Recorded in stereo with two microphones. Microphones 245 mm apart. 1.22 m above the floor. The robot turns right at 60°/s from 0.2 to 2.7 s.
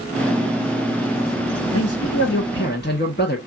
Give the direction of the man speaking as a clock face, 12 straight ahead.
9 o'clock.